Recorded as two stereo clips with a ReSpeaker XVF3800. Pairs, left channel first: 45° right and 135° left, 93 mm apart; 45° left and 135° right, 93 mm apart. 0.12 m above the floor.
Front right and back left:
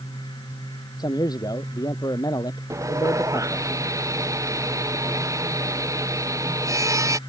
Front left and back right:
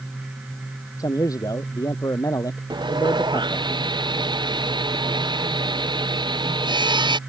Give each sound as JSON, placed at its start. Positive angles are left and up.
{"t": 1.0, "sound": "a man speaking", "azimuth_deg": -5}
{"t": 2.7, "sound": "sawing", "azimuth_deg": -170}